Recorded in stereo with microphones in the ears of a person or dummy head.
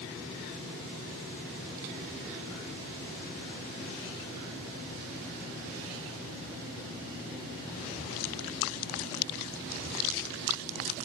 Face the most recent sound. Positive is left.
No sound to turn to.